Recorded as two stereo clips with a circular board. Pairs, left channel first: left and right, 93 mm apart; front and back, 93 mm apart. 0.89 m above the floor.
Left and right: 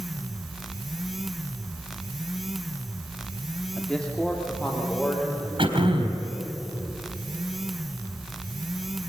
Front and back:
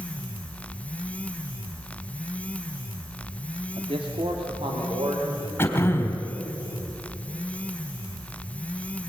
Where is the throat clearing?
70° right, 4 m.